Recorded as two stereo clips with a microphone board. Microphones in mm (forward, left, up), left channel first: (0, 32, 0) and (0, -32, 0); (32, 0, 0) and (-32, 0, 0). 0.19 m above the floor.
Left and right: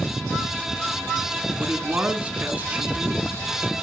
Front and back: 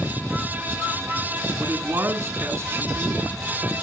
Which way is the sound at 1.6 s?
150° right.